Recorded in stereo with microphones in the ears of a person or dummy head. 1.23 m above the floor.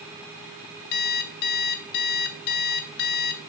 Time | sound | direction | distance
0.9 | an alarm clock | 50° left (ahead or behind) | 0.5 m